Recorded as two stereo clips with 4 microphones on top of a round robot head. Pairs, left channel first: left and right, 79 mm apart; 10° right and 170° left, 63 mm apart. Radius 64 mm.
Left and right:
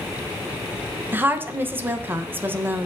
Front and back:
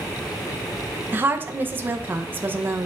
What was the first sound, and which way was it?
A woman speaking, 145° right.